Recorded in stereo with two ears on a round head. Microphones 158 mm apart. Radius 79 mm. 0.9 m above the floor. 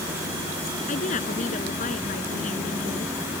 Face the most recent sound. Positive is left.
turn(degrees=45)  # may be behind; listen again after turning